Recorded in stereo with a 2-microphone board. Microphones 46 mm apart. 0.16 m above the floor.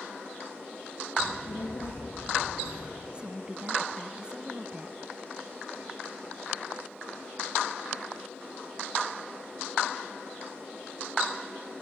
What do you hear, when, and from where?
1.2 s a child speaking: 75° left (ahead or behind), 5 m; by 3.0 s 50° left (ahead or behind), 5 m
3.1 s a woman speaking: 20° right (ahead or behind), 1.0 m